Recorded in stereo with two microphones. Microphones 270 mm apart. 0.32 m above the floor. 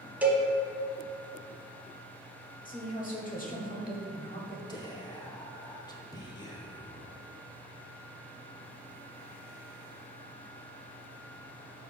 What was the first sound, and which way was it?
A cowbell, 5° right (ahead or behind).